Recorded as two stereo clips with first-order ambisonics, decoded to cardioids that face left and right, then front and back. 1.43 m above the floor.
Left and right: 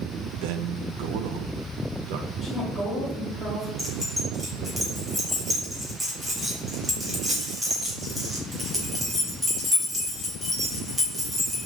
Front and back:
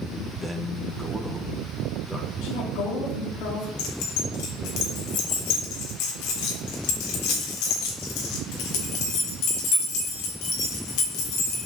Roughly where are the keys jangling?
Ahead.